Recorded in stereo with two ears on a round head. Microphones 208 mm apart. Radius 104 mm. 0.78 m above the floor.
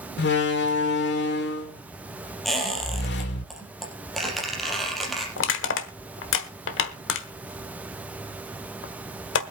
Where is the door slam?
50° left (ahead or behind), 2 m.